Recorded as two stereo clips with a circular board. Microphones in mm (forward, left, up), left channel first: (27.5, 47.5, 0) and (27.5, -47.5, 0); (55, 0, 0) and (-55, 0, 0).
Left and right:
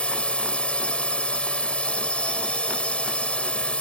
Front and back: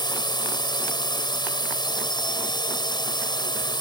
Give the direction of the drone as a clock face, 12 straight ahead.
11 o'clock.